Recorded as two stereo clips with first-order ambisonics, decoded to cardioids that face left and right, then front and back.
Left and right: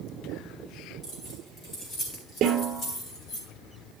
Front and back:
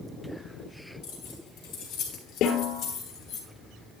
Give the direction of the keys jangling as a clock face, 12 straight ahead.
11 o'clock.